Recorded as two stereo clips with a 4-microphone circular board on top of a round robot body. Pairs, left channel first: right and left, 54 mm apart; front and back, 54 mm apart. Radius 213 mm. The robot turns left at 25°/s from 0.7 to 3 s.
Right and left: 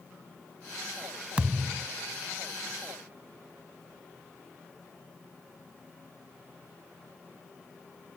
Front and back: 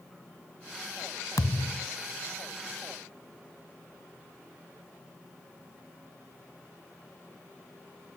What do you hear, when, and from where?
1.4 s a thud: 15° left; by 1.9 s 5° left